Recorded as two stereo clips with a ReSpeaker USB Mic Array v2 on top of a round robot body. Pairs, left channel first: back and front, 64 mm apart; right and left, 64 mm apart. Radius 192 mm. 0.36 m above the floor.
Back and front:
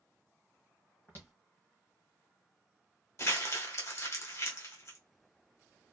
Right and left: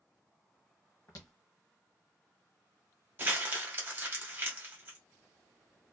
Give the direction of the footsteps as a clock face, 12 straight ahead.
4 o'clock.